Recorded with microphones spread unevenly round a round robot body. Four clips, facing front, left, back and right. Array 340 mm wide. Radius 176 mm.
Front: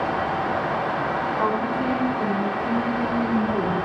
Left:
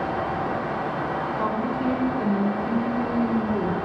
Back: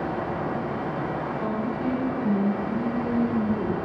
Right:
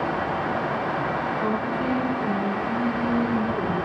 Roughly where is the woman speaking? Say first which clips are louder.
Even, front 5 dB; ahead.